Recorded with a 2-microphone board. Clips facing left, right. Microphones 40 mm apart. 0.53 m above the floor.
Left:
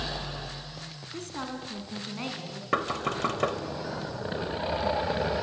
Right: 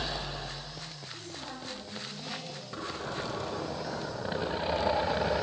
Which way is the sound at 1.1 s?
70° left (ahead or behind).